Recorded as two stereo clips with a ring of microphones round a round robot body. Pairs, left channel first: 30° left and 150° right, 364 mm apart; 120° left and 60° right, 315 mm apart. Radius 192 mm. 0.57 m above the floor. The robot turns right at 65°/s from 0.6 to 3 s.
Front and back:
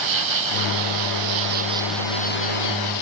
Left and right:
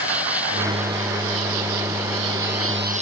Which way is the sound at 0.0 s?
145° right.